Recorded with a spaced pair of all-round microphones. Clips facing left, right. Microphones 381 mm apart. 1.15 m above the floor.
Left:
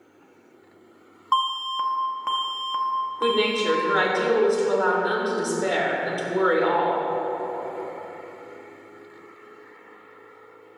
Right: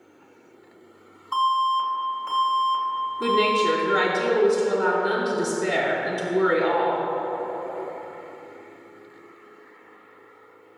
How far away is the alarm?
About 0.6 m.